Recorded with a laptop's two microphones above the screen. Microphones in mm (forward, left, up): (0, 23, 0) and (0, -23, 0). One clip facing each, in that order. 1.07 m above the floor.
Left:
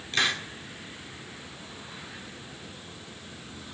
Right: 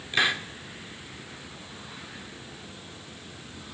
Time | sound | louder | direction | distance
0.1 | a hiss | right 2 dB | 15° right (ahead or behind) | 0.8 m